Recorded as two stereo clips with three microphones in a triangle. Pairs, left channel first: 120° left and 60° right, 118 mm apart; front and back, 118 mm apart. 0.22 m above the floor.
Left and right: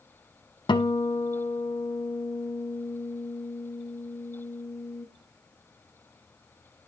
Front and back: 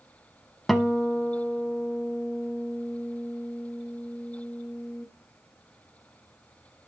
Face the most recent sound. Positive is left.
turn(degrees=90)